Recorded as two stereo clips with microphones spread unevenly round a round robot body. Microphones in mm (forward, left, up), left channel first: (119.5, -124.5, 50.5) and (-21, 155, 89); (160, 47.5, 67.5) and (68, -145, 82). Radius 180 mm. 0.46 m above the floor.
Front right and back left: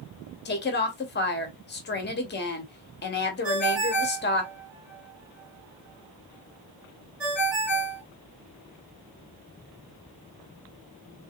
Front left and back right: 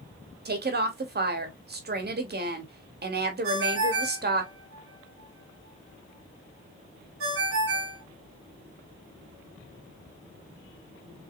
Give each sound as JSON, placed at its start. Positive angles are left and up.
{"t": 0.5, "sound": "a woman speaking", "azimuth_deg": -95, "distance_m": 1.7}
{"t": 3.4, "sound": "a ringtone", "azimuth_deg": -155, "distance_m": 3.0}